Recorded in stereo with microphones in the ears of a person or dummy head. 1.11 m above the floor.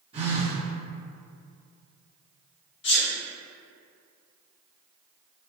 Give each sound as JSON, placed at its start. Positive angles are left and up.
{"t": 0.1, "sound": "a phone buzzing", "side_deg": -25, "distance_m": 1.2}
{"t": 2.8, "sound": "a sneeze", "side_deg": 50, "distance_m": 0.9}